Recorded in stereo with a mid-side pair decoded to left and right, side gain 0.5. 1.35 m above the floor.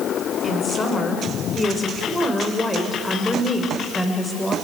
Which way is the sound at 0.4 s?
30° left.